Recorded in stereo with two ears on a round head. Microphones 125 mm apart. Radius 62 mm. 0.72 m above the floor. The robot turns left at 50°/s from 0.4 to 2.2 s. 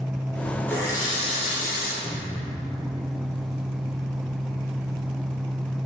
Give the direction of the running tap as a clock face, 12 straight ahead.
7 o'clock.